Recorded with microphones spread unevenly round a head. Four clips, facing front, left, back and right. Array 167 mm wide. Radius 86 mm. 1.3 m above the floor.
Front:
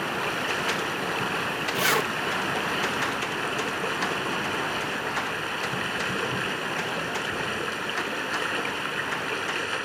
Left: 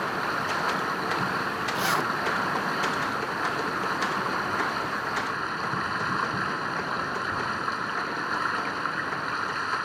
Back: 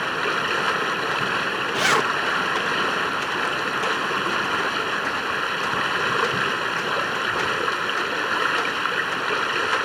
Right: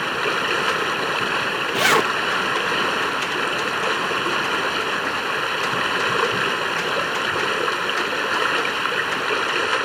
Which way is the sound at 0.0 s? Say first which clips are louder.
Right 5 dB, back 4 dB; 110° right.